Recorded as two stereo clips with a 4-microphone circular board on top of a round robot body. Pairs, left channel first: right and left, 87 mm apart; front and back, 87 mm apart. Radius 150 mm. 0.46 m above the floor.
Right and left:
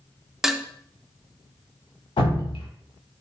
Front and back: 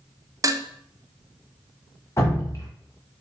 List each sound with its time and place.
0.4 s dishes clattering: 175° left, 0.6 m
2.2 s dripping: 60° right, 1.2 m